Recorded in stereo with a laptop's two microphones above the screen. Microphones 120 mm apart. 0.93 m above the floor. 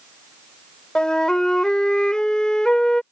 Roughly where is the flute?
Centre.